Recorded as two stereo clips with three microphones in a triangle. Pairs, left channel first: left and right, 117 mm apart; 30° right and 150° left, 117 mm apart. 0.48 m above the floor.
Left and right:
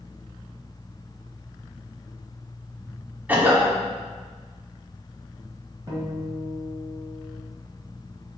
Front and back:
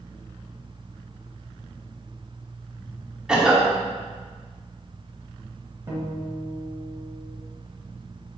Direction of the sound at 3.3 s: 140° right.